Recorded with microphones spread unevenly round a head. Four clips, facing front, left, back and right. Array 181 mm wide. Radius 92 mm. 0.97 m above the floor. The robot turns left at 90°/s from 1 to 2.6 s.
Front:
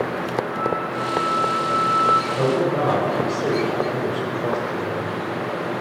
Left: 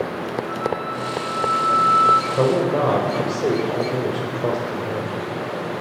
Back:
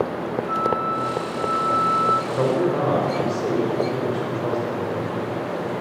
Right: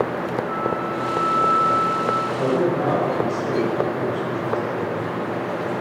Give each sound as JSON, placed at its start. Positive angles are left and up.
{"t": 0.5, "sound": "a flute", "azimuth_deg": -170, "distance_m": 3.5}
{"t": 2.3, "sound": "a man speaking", "azimuth_deg": 110, "distance_m": 4.5}